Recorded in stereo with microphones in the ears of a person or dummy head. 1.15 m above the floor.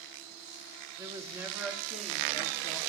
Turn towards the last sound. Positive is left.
turn(degrees=10)  # may be behind; listen again after turning